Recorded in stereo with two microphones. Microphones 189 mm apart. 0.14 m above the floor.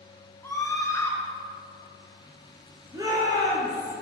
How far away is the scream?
About 1.9 m.